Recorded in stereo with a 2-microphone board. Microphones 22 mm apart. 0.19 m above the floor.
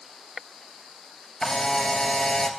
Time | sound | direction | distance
1.4 | a camera shutter | 25° left (ahead or behind) | 1.1 m